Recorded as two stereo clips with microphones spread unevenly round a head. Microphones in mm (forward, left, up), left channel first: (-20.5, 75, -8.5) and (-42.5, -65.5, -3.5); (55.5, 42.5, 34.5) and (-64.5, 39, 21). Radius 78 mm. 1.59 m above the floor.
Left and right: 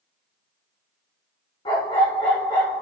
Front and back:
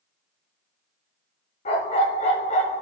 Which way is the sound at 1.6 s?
20° left.